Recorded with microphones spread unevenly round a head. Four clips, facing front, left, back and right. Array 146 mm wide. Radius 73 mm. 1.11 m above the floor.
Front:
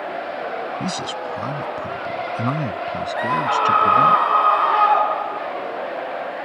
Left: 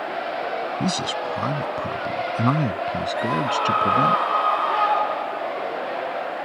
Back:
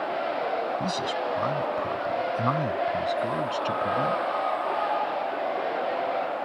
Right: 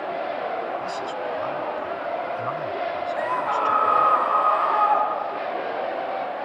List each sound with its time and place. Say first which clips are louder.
0.8 s a man speaking: left 3 dB, front 1 dB; 80° left; by 4.2 s 75° left
3.1 s a scream: left 1 dB, front 7 dB; straight ahead